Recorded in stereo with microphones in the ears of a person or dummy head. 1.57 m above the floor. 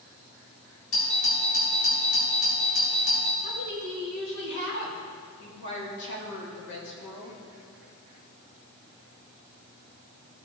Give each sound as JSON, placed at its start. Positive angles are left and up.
{"t": 0.9, "sound": "a doorbell", "side_deg": 70, "distance_m": 3.5}
{"t": 3.4, "sound": "a woman speaking", "side_deg": 65, "distance_m": 3.0}